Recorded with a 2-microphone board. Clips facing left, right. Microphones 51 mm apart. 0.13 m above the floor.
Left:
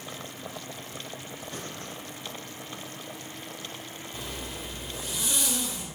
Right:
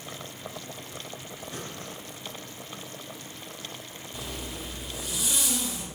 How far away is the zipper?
About 4 m.